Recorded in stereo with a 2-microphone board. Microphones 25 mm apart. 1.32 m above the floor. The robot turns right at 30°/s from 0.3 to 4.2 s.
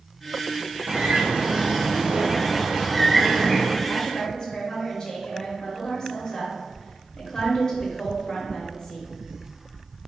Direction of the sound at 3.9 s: 20° left (ahead or behind).